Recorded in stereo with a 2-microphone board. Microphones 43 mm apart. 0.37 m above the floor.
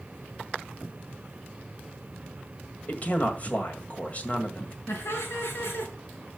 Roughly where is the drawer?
No drawer in this recording.